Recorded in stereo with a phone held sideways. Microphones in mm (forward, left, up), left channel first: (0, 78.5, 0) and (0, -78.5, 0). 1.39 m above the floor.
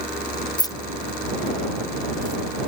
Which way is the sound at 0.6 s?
25° left (ahead or behind).